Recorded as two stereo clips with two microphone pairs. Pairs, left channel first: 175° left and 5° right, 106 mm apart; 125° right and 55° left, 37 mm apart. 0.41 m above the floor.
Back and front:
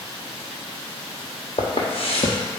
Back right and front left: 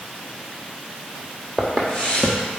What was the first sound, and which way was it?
Footsteps, 160° left.